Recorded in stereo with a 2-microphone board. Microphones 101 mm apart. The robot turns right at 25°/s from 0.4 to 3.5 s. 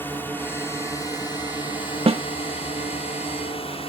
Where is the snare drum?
75° right (ahead or behind); by 2.2 s 80° right.